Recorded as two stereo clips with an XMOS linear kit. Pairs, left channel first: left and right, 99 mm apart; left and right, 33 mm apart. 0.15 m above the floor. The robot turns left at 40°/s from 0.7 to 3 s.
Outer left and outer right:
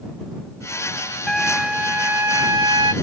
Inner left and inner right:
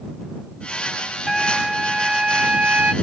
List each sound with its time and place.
1.3 s a trumpet: 5° left; by 2.9 s 60° right